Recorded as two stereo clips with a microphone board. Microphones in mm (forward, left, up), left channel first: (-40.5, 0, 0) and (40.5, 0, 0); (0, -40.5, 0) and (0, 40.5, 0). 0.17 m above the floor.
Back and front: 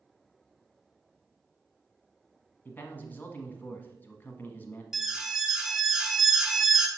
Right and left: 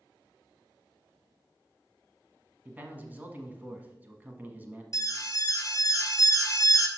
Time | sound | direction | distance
2.6 | a man speaking | 135° left | 1.1 m
4.9 | an alarm | 80° right | 0.9 m